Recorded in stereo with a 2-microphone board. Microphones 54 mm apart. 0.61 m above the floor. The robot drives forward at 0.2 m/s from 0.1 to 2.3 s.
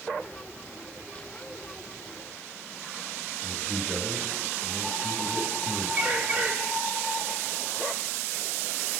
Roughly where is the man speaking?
Centre.